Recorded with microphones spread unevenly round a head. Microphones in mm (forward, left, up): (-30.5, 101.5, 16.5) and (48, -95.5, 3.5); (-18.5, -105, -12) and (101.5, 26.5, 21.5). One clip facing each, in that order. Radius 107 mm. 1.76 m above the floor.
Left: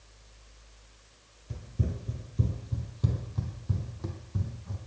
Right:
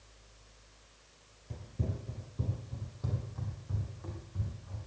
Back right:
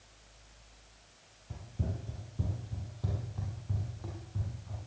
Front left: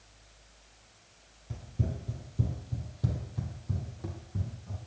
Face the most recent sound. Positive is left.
turn(degrees=105)